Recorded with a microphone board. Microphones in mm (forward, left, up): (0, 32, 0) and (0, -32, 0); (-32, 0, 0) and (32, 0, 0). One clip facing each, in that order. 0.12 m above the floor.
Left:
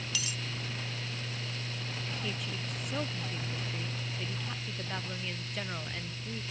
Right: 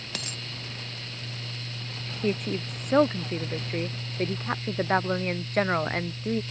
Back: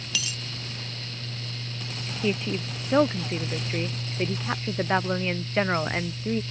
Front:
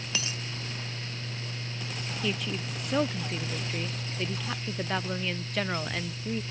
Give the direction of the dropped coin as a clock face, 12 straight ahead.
2 o'clock.